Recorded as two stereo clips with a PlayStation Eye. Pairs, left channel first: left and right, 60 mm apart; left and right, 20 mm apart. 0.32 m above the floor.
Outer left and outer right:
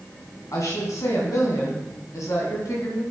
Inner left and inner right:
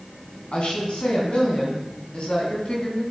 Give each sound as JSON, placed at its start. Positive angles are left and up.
{"t": 0.5, "sound": "a woman speaking", "side_deg": 65, "distance_m": 2.5}